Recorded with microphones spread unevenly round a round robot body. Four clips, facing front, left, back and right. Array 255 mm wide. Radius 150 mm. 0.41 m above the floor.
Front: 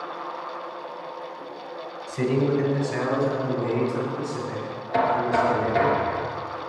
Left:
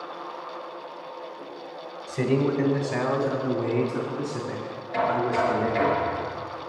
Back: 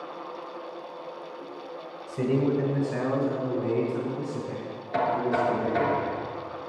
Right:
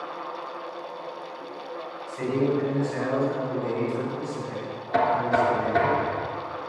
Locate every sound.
2.1 s a man speaking: 110° left, 2 m; by 5.9 s 145° left, 4.5 m
4.9 s knocking: 85° right, 4 m